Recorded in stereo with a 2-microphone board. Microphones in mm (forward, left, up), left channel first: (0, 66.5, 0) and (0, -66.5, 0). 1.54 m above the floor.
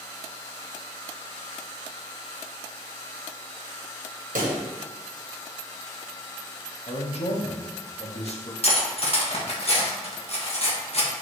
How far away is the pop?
About 1.0 m.